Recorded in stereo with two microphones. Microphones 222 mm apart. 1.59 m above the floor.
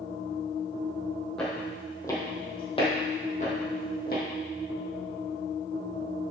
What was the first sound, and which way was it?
Footsteps, 5° left (ahead or behind).